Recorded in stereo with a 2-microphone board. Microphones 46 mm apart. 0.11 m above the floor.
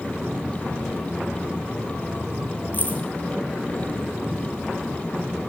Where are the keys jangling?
40° left (ahead or behind), 2 m.